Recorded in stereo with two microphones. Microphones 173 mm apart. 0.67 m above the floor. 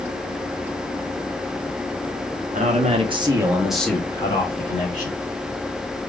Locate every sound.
2.5 s a man speaking: 45° right (ahead or behind), 1.2 m; by 5.2 s 45° left (ahead or behind), 1.5 m